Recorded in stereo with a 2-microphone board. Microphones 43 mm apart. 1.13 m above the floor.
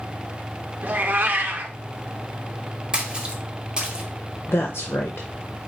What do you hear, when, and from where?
0.8 s a cat meowing: 45° right (ahead or behind), 0.6 m
2.9 s a splash: 25° right (ahead or behind), 1.0 m
4.5 s a woman speaking: 85° left, 0.6 m